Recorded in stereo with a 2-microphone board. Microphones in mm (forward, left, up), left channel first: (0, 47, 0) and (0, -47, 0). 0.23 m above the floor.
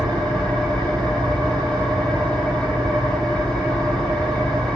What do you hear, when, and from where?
0.0 s an engine running: 15° left (ahead or behind), 5 m